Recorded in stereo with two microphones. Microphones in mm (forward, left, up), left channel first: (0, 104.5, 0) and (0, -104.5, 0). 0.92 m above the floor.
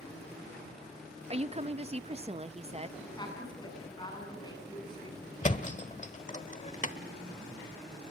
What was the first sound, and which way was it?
A woman speaking, 30° right (ahead or behind).